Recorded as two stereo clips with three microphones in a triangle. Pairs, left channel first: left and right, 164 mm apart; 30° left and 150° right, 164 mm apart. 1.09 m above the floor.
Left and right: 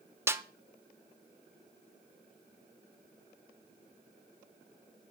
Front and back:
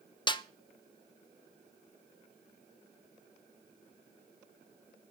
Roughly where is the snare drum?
Ahead.